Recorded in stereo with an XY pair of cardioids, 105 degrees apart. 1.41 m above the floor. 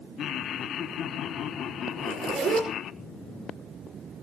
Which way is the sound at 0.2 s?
65° left.